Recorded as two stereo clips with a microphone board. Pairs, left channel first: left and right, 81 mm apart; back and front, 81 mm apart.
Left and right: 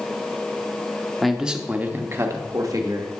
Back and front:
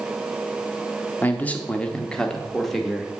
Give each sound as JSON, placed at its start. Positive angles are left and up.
{"t": 1.2, "sound": "a man speaking", "azimuth_deg": 180, "distance_m": 0.8}